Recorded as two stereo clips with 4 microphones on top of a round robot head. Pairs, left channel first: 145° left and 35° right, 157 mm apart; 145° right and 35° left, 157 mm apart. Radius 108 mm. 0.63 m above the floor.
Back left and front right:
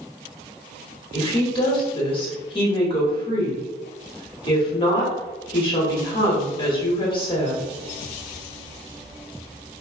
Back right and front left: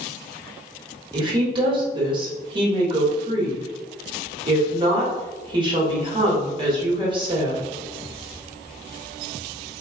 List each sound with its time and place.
1.1 s a woman speaking: 90° left, 1.4 m